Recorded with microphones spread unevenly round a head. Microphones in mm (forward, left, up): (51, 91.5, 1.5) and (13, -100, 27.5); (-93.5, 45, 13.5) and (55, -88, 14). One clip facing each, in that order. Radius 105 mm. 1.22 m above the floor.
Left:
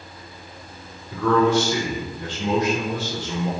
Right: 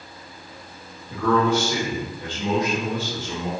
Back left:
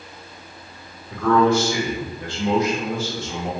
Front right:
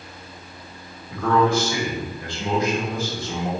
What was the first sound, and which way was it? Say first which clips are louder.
A man speaking: left 2 dB, back left 2 dB; 120° right.